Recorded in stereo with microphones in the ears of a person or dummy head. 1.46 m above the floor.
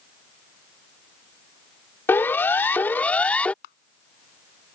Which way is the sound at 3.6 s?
60° left (ahead or behind).